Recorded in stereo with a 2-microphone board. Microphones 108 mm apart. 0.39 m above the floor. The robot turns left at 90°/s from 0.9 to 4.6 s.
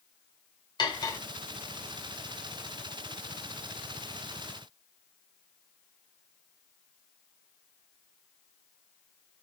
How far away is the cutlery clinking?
About 0.6 m.